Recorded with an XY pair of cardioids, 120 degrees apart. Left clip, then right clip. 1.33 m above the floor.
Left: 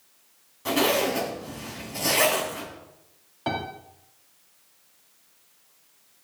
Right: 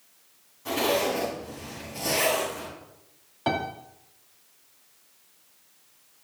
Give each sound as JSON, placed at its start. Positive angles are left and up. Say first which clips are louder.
{"t": 0.7, "sound": "a zipper", "louder": "left 2 dB", "azimuth_deg": 50, "distance_m": 6.5}
{"t": 3.5, "sound": "a piano", "louder": "right 2 dB", "azimuth_deg": -10, "distance_m": 2.5}